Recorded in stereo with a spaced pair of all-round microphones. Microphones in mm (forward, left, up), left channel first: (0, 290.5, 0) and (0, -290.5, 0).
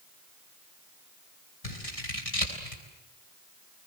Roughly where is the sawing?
I don't hear sawing.